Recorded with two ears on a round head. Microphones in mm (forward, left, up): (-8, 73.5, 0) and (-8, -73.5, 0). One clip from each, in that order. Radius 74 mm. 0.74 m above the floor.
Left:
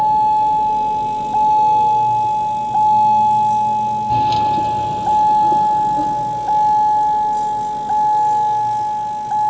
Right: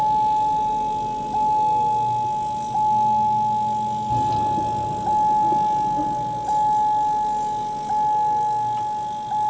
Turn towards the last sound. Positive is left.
turn(degrees=75)  # may be behind; listen again after turning